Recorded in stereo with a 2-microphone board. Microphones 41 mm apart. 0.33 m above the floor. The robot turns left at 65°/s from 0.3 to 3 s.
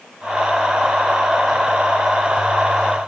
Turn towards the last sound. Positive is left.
No sound to turn to.